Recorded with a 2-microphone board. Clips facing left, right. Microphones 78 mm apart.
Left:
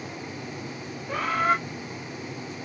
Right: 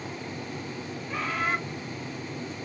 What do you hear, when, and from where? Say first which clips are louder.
1.1 s a bird: left 5 dB; 55° left (ahead or behind), 2.5 m